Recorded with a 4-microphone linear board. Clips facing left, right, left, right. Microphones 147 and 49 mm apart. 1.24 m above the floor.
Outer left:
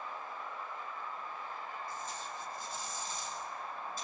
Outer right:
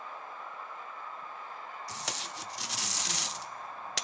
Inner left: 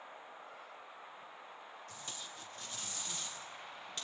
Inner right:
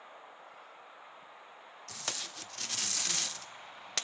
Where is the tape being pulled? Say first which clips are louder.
Outer right 1 dB, inner right 9 dB; 80° right, 0.6 m.